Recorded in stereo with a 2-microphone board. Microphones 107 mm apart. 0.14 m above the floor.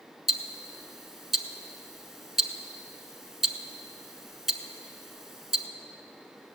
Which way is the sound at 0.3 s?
5° right (ahead or behind).